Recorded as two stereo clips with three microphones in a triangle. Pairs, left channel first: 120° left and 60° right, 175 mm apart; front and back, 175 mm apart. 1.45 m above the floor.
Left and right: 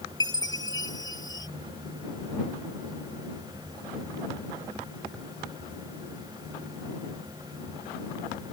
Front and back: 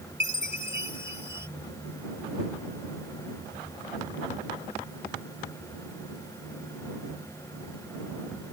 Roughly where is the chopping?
I don't hear chopping.